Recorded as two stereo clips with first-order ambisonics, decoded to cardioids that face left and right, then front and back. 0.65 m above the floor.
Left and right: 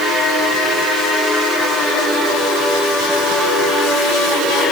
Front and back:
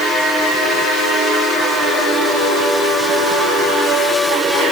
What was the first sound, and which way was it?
Only background noise.